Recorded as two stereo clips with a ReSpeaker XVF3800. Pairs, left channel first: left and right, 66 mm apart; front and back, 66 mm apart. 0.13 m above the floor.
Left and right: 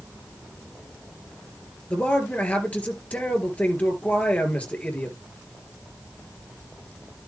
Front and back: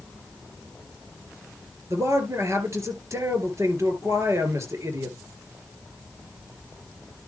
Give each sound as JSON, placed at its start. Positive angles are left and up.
{"t": 1.9, "sound": "a man speaking", "azimuth_deg": 155, "distance_m": 3.0}